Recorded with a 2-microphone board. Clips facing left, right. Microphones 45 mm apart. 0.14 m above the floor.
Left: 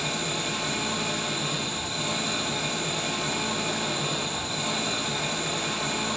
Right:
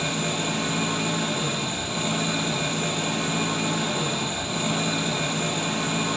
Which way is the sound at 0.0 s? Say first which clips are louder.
Right 3 dB; 65° right (ahead or behind).